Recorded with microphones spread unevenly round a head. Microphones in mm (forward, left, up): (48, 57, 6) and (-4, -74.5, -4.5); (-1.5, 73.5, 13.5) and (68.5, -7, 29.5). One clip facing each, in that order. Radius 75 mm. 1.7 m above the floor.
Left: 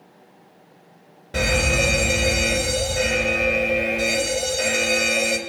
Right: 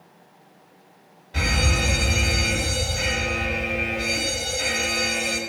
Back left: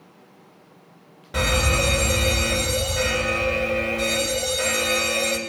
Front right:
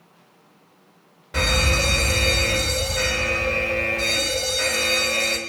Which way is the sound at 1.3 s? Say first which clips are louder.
Left 5 dB, back left 1 dB; 55° left.